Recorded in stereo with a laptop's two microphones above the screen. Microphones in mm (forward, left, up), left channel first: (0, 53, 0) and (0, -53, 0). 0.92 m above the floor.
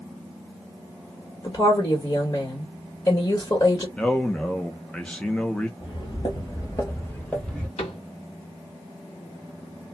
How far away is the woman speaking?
About 1.5 m.